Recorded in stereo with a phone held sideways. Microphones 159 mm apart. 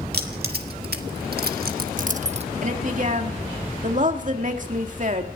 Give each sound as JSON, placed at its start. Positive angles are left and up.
{"t": 0.1, "sound": "keys jangling", "side_deg": -80, "distance_m": 2.0}
{"t": 2.6, "sound": "a woman speaking", "side_deg": -55, "distance_m": 2.0}